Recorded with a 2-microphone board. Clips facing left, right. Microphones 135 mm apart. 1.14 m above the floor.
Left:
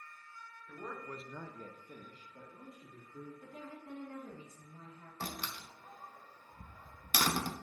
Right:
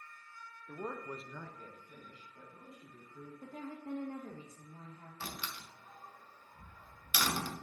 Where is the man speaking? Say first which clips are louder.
Right 3 dB; 35° right (ahead or behind), 1.0 m; by 3.3 s 45° left (ahead or behind), 3.5 m.